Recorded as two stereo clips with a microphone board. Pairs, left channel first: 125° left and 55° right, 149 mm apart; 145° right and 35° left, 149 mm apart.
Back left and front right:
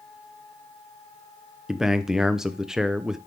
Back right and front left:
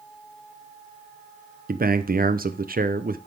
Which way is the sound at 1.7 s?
30° left.